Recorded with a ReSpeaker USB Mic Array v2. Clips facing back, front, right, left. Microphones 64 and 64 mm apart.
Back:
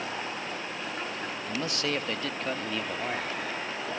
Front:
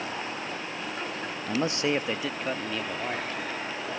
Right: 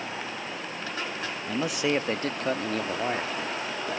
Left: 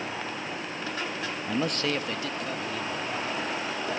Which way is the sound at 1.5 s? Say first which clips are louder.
Front 5 dB, right 2 dB; 25° left.